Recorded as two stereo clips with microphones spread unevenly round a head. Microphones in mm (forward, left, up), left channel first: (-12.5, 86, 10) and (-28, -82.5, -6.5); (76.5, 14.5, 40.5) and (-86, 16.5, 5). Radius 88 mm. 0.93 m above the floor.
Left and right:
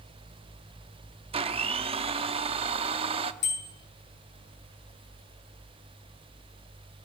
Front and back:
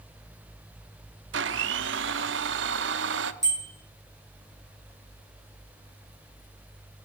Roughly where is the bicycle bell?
Left.